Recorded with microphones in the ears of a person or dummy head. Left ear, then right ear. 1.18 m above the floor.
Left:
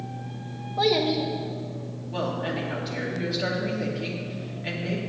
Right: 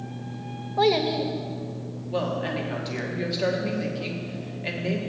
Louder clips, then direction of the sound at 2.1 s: Right 2 dB; 20° right (ahead or behind).